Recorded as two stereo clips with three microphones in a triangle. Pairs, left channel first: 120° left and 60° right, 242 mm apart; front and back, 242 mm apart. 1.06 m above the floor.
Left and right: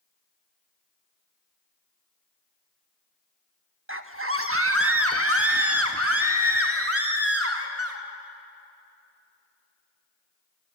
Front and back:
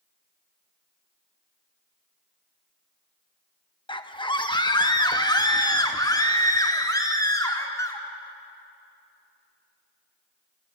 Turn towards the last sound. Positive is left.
turn(degrees=-75)